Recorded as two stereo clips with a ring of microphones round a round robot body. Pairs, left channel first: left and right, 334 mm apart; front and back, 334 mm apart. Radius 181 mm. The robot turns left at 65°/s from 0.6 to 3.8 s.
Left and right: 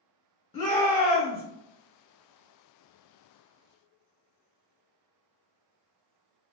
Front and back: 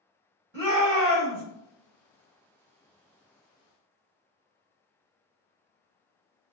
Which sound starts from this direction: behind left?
A shout, at 0.5 s.